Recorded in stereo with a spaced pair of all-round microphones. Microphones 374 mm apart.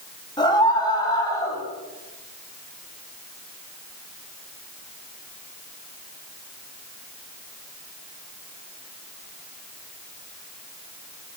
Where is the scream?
10° left (ahead or behind), 9.5 m.